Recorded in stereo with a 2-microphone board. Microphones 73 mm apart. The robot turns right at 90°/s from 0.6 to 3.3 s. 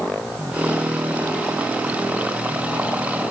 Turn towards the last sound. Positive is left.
No sound to turn to.